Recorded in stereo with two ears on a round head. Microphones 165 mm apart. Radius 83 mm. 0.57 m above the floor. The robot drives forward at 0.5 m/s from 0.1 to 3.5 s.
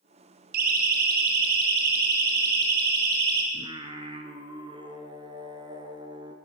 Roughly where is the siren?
Right.